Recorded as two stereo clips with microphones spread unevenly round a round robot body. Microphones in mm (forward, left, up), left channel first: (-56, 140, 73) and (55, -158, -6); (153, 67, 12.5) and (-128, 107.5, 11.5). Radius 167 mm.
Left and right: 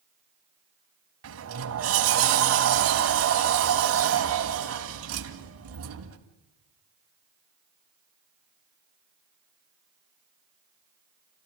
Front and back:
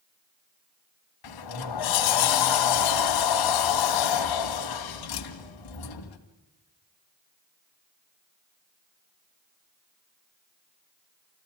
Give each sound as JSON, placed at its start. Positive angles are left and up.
{"t": 1.2, "sound": "a sliding door", "azimuth_deg": -15, "distance_m": 2.5}